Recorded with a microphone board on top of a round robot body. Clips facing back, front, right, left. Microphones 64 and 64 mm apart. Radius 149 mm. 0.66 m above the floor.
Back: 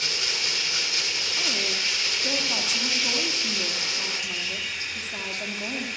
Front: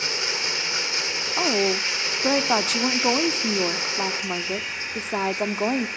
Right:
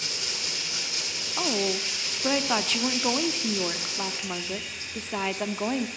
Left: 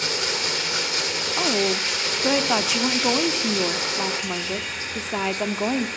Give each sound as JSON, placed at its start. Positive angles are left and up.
{"t": 0.0, "sound": "running water", "azimuth_deg": 60, "distance_m": 1.8}
{"t": 1.4, "sound": "a woman speaking", "azimuth_deg": 10, "distance_m": 1.8}